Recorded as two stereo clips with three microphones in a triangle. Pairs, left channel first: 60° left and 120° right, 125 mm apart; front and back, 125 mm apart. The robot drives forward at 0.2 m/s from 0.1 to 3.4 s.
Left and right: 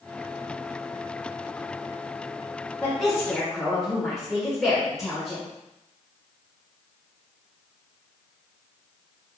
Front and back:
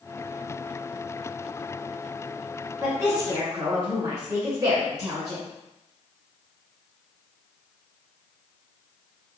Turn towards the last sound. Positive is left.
turn(degrees=155)